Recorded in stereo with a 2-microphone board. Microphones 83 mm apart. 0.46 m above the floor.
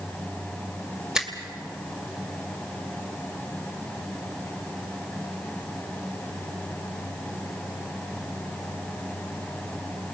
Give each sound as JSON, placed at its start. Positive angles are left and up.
{"t": 1.1, "sound": "a finger snap", "side_deg": -5, "distance_m": 2.0}